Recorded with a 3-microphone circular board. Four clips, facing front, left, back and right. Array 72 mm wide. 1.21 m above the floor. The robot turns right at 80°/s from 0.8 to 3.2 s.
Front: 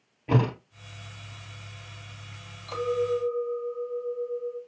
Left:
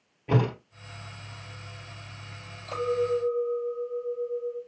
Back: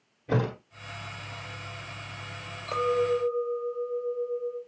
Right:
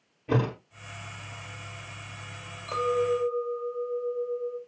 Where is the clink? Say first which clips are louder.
Right 1 dB, back 1 dB; 165° right, 2 m; by 4.6 s 125° right, 2 m.